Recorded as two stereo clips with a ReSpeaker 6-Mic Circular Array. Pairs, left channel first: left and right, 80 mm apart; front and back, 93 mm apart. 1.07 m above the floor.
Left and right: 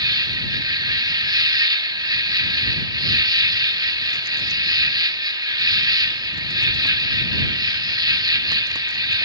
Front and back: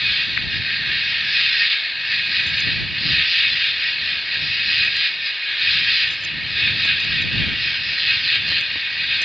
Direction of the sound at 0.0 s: 90° right.